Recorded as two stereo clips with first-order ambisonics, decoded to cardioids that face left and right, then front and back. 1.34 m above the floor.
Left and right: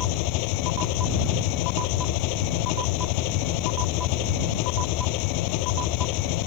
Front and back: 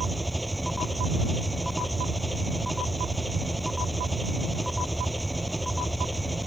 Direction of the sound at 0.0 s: 95° left.